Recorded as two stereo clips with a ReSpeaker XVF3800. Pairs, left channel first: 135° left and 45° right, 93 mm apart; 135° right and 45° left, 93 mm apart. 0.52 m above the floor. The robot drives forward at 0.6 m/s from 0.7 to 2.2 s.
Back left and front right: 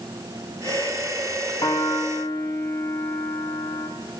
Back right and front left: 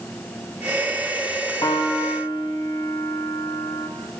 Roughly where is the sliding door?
I don't hear a sliding door.